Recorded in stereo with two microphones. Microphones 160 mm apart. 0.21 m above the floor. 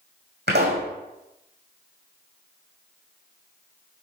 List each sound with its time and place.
0.5 s a pop: 85° right, 2.5 m